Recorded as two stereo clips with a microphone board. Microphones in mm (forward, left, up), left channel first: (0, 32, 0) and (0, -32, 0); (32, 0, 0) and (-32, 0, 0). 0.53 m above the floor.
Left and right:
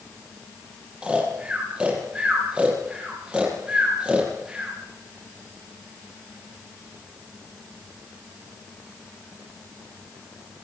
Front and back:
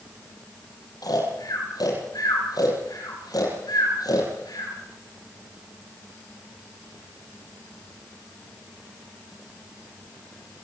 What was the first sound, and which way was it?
Snoring, 20° right.